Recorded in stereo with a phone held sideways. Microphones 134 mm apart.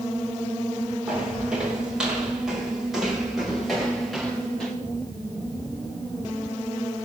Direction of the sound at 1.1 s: 5° right (ahead or behind).